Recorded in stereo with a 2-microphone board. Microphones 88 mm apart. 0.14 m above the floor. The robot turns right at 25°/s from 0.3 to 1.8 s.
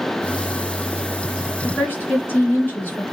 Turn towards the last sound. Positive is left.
turn(degrees=20)  # may be behind; listen again after turning